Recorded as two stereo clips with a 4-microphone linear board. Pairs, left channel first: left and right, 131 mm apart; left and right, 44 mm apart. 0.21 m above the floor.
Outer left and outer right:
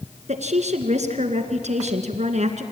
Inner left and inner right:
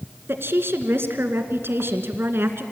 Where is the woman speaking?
65° right (ahead or behind), 2 m.